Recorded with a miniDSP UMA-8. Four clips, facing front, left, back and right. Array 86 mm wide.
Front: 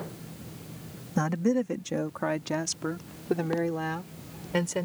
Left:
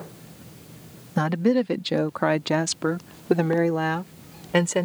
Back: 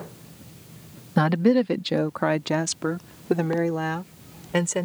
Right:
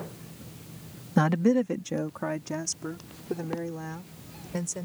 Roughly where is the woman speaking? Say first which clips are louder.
Left 2 dB, back 7 dB; behind.